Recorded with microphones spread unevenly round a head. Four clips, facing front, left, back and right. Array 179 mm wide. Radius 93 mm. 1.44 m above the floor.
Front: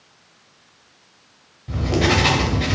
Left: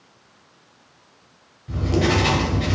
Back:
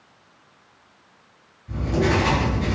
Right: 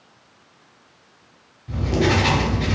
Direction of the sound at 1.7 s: 10° right.